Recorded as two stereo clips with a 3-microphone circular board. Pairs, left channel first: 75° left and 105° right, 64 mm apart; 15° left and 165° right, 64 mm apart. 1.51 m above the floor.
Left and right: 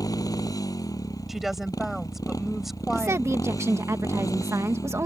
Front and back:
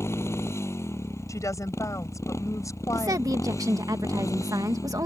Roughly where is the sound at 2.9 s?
Behind right.